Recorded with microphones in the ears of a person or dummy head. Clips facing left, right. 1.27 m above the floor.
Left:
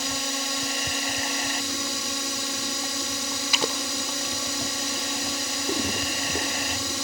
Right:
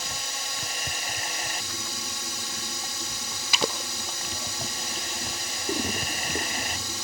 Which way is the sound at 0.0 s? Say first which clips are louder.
Left 8 dB; 60° left (ahead or behind).